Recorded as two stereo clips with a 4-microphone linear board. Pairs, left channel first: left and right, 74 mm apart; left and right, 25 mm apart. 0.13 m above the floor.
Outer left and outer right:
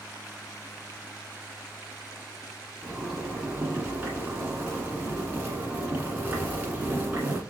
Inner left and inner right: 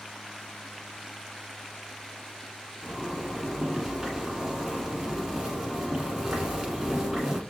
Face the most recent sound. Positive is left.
turn(degrees=-25)  # may be behind; listen again after turning